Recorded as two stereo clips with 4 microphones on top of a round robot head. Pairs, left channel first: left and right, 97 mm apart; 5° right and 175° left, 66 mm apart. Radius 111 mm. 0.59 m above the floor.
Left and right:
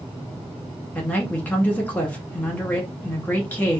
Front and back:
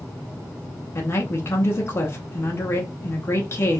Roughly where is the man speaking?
Ahead left.